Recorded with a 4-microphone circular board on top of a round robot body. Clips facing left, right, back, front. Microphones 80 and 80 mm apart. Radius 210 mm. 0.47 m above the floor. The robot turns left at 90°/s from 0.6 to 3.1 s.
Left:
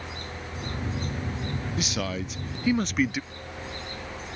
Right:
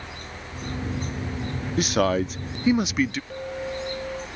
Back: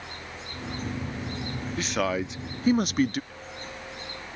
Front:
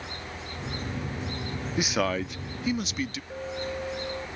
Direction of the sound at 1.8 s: 70° right.